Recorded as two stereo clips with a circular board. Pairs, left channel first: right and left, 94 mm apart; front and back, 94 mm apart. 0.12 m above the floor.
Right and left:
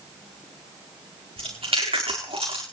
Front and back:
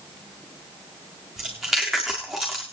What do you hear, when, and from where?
1.4 s chewing: 90° left, 5 m